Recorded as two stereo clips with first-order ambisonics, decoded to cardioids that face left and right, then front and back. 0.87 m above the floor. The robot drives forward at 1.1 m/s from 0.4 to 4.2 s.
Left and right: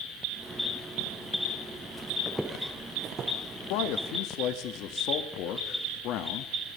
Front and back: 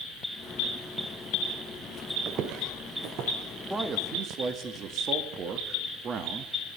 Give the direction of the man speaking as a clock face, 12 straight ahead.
9 o'clock.